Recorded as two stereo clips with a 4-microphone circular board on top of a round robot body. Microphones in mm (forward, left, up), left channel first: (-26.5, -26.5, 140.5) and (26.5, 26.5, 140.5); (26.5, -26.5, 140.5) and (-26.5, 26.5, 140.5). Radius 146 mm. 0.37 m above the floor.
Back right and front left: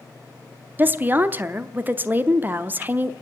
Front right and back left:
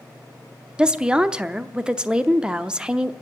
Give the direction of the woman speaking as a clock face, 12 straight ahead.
10 o'clock.